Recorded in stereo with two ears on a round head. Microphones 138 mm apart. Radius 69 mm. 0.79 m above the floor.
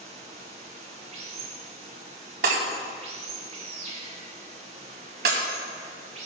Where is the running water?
40° right (ahead or behind), 3.5 m.